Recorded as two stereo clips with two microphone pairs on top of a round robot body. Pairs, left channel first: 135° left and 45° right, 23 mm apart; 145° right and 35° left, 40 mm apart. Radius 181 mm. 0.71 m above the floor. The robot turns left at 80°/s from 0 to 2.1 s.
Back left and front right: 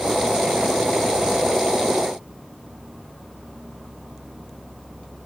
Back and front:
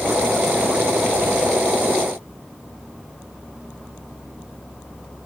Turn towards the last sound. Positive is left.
No sound to turn to.